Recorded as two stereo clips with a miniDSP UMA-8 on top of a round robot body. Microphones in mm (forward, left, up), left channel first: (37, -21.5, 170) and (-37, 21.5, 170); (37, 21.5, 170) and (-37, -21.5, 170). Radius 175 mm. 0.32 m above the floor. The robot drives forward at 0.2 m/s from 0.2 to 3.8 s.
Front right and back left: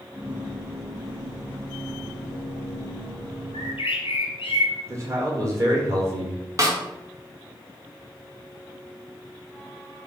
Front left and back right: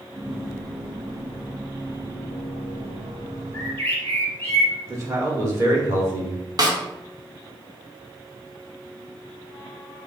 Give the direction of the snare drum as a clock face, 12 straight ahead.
6 o'clock.